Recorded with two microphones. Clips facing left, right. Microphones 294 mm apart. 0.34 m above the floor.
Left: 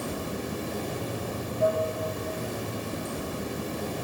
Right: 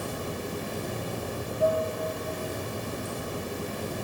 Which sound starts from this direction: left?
Running water, at 0.0 s.